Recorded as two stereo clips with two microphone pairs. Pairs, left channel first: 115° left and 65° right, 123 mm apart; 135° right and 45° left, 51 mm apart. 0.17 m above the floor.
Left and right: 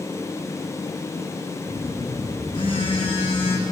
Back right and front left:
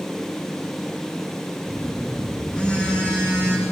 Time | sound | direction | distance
1.7 | a phone buzzing | 160° left | 7.5 m